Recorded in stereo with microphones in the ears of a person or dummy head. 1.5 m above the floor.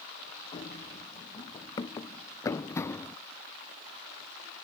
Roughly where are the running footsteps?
Left.